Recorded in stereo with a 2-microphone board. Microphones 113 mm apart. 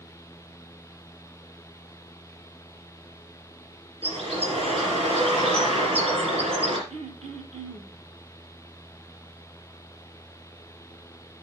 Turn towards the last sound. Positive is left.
turn(degrees=-80)